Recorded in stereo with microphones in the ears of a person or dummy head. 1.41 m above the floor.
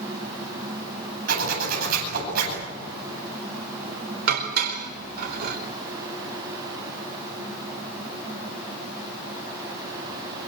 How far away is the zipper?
About 10 m.